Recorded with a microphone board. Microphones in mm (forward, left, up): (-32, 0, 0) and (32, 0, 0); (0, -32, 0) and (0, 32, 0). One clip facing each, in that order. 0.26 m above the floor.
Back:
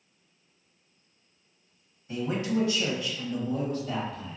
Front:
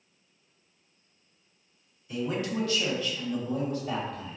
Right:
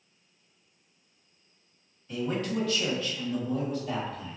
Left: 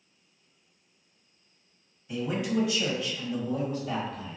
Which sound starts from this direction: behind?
A man speaking, at 2.1 s.